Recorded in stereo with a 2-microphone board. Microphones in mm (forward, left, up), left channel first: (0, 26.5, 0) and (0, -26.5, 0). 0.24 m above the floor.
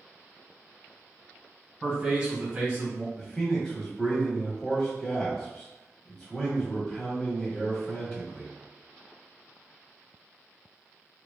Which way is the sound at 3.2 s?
10° left (ahead or behind).